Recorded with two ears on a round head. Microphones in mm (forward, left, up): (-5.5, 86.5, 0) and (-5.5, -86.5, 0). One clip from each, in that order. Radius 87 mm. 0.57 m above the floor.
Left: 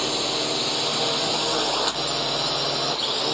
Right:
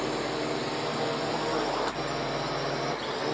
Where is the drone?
85° left.